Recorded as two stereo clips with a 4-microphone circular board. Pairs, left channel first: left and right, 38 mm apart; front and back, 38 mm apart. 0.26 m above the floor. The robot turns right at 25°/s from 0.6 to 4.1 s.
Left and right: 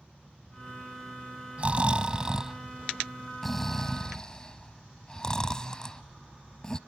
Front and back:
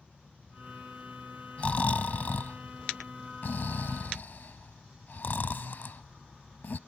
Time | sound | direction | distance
1.6 | snoring | 45° right | 0.6 m